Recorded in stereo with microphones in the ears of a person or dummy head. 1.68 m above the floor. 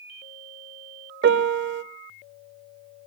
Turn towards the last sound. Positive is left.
turn(degrees=-70)  # may be behind; listen again after turning